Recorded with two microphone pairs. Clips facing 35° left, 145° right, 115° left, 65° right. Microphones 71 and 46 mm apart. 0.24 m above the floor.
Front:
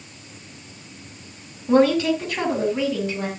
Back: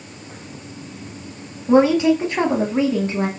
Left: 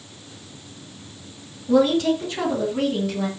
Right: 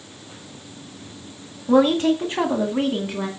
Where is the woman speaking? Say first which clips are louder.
Back 3 dB, right 1 dB; 80° right, 1.7 m; by 3.3 s 120° right, 2 m.